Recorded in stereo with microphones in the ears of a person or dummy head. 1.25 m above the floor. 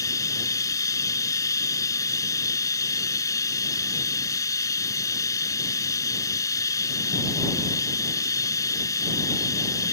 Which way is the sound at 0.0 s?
15° left (ahead or behind).